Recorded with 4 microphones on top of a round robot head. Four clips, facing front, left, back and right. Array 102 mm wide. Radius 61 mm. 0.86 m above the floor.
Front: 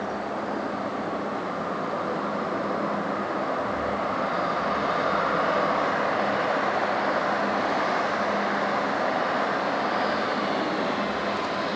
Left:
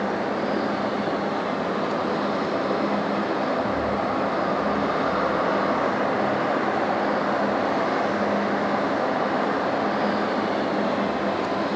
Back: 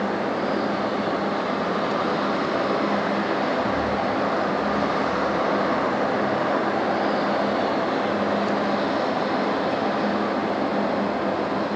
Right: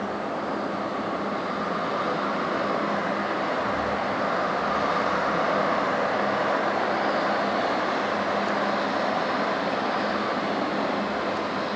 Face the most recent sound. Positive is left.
No sound to turn to.